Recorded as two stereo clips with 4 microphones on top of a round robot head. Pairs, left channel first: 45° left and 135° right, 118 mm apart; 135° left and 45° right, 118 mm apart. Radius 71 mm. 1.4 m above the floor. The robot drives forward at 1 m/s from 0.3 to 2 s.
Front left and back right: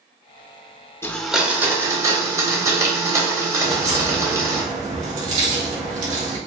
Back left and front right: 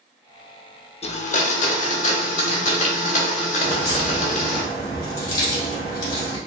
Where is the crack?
165° right, 1.5 m.